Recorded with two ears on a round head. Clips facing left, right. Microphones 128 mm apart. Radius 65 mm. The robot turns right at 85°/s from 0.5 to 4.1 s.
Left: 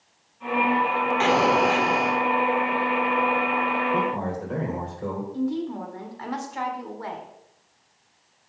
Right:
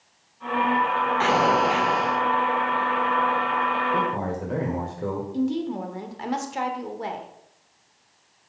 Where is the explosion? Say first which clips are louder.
Left 1 dB; 30° left, 1.3 m; by 2.2 s 115° left, 1.3 m.